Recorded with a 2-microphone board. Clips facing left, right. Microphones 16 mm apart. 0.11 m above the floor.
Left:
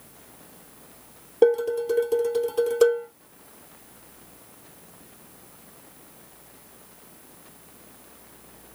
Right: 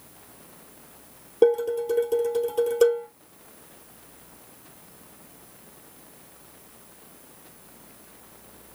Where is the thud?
I don't hear a thud.